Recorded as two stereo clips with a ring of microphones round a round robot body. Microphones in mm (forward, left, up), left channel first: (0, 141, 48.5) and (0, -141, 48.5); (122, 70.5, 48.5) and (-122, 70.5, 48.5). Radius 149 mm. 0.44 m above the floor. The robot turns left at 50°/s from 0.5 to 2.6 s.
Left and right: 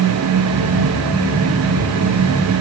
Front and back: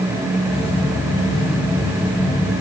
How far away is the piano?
No piano in this recording.